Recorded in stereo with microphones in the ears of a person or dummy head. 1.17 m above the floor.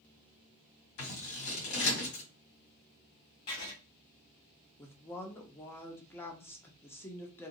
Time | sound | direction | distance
1.0 | scissors | 75° left (ahead or behind) | 1.9 m
3.5 | writing | 25° left (ahead or behind) | 0.6 m
4.8 | a woman speaking | 15° left (ahead or behind) | 0.5 m